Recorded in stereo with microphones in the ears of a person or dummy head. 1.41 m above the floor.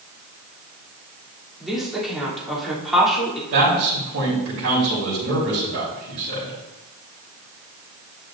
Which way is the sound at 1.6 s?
Centre (ahead or behind).